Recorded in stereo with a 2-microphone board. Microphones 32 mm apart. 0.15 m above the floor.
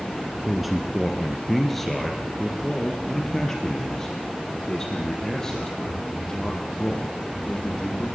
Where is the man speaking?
5° right (ahead or behind), 2 m; by 8.1 s 20° left (ahead or behind), 7.5 m.